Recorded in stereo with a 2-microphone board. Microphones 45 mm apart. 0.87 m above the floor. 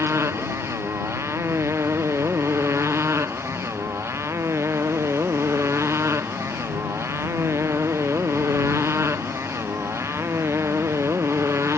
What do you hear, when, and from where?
0.0 s a motorcycle: 80° right